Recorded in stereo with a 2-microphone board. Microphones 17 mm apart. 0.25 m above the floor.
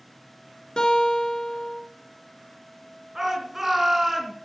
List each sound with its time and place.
0.8 s a guitar: 55° left (ahead or behind), 3 m
3.1 s a shout: 20° right (ahead or behind), 3.5 m